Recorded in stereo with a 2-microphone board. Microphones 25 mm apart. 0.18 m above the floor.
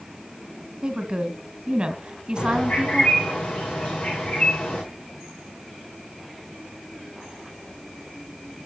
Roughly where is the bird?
Left.